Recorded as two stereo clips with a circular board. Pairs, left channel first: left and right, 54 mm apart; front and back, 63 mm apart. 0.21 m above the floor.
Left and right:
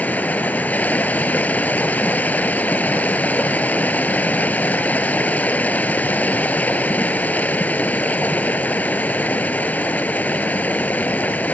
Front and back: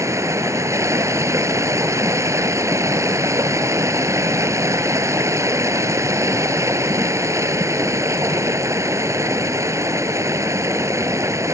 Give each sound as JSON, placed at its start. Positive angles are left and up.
{"t": 0.0, "sound": "running water", "azimuth_deg": 145}